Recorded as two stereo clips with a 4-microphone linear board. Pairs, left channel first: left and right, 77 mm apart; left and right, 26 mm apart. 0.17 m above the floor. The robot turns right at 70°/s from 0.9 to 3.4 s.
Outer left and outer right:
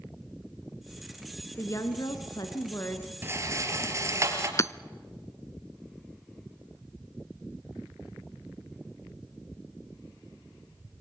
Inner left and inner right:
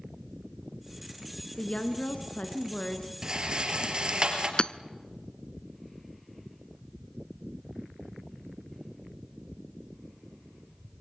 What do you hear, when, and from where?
1.6 s a woman speaking: 40° left, 1.7 m; by 3.1 s 150° left, 1.7 m
3.2 s a rattle: 25° right (ahead or behind), 3.5 m; by 4.5 s 40° right (ahead or behind), 3.5 m
4.6 s hammering: 40° left (ahead or behind), 0.5 m